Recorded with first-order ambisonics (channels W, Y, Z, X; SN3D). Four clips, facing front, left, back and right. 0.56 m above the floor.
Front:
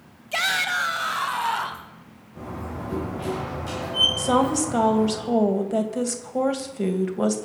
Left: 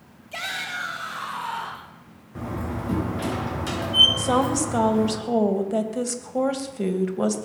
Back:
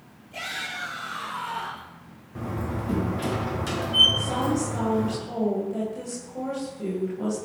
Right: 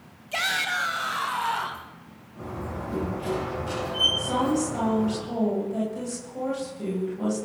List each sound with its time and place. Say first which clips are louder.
0.3 s a shout: right 4 dB, front 10 dB; 20° right, 3 m
2.4 s a door slam: left 4 dB, back 3 dB; 120° left, 5.5 m
4.2 s a woman speaking: left 3 dB, front 5 dB; 45° left, 2.5 m